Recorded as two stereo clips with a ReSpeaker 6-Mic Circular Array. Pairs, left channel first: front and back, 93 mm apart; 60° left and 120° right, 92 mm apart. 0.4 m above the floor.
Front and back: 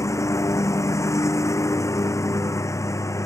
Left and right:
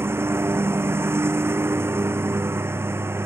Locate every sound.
0.0 s a lawn mower: 55° right